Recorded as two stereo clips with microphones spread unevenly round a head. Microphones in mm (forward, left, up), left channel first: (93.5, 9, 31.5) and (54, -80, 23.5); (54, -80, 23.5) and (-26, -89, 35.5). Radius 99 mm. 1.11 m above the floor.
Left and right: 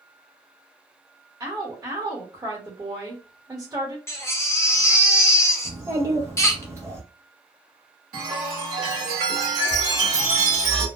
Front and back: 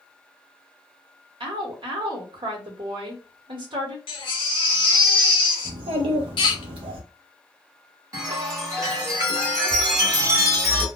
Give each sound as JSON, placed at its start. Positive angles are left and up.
{"t": 1.4, "sound": "a woman speaking", "azimuth_deg": -170, "distance_m": 1.2}
{"t": 4.1, "sound": "a baby crying", "azimuth_deg": 5, "distance_m": 0.8}
{"t": 5.7, "sound": "a child speaking", "azimuth_deg": 170, "distance_m": 0.6}
{"t": 8.1, "sound": "a chime", "azimuth_deg": -140, "distance_m": 1.5}